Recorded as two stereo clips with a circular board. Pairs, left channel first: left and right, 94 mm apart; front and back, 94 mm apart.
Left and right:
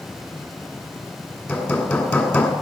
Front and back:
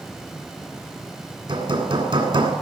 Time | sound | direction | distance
1.5 | hammering | 155° left | 1.8 m